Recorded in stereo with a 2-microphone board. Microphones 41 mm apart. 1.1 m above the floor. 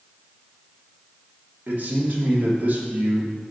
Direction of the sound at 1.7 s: 45° right (ahead or behind).